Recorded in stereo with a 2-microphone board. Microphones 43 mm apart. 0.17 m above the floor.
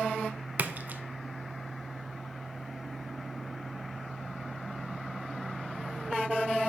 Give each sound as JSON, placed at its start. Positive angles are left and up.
{"t": 0.6, "sound": "a splash", "side_deg": -45, "distance_m": 0.5}